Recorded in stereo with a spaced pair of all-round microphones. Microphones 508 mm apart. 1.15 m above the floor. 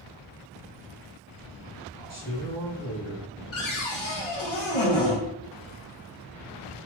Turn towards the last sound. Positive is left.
turn(degrees=65)  # may be behind; listen again after turning